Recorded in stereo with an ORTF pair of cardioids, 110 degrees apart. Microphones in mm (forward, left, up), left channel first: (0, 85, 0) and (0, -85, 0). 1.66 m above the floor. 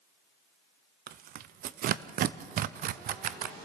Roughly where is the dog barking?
No dog barking in this recording.